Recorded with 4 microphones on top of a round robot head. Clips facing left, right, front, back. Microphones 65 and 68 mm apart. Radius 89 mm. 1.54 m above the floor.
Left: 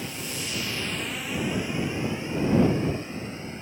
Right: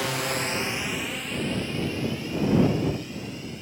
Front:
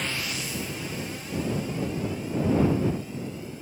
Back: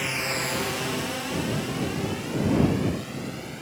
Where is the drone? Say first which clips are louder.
Right 7 dB, back 4 dB; 95° right; by 3.6 s 155° left.